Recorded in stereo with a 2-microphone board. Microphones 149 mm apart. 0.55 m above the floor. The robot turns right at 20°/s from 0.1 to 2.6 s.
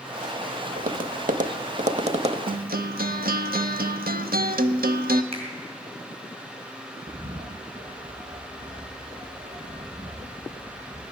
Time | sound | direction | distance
0.8 | tapping | 75° right (ahead or behind) | 0.8 m
2.5 | a guitar | 80° right | 0.6 m
5.3 | a finger snap | 40° right (ahead or behind) | 3.5 m
7.1 | a bird | 35° right (ahead or behind) | 5 m